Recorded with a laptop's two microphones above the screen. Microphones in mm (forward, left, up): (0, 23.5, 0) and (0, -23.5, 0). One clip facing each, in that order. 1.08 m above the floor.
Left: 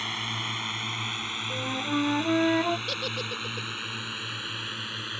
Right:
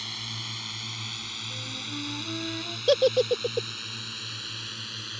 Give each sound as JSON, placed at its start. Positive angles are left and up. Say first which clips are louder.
{"t": 0.0, "sound": "a drone", "louder": "left 6 dB", "side_deg": 40}
{"t": 1.5, "sound": "a flute", "louder": "left 11 dB", "side_deg": 80}
{"t": 2.9, "sound": "a giggle", "louder": "right 11 dB", "side_deg": -80}